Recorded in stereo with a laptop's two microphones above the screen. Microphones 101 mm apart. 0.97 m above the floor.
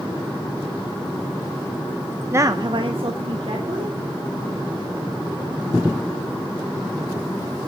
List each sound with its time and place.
2.3 s a woman speaking: 25° right (ahead or behind), 0.6 m; by 4.0 s 70° right (ahead or behind), 2.5 m